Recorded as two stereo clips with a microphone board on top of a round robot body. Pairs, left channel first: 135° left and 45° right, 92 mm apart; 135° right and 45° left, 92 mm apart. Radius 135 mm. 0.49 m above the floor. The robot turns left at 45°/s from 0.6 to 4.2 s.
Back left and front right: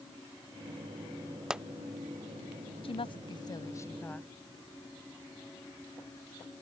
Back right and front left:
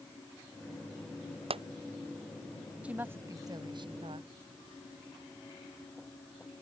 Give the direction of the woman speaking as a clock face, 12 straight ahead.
8 o'clock.